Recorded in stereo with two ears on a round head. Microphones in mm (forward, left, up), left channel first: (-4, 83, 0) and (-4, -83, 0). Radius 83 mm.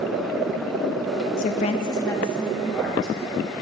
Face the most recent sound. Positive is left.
turn(degrees=0)  # may be behind; listen again after turning